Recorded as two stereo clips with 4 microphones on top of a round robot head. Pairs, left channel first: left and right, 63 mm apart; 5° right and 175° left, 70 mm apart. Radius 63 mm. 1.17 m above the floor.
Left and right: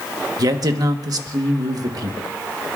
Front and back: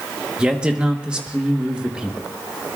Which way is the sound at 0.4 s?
110° right.